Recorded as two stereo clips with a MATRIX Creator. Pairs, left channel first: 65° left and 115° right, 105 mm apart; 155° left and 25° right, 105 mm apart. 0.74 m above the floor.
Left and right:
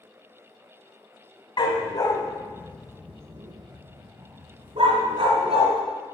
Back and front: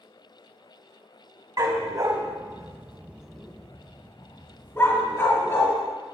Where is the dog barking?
30° left, 1.1 m; by 5.7 s 140° right, 1.9 m.